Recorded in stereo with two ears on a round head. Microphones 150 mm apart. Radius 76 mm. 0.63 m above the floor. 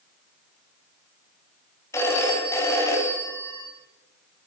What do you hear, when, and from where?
1.9 s a phone ringing: 15° left (ahead or behind), 4 m